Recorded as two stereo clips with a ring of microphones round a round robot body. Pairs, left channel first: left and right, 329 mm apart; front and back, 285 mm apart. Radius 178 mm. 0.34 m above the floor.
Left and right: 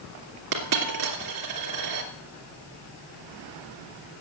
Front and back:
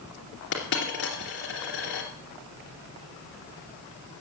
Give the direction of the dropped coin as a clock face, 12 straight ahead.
2 o'clock.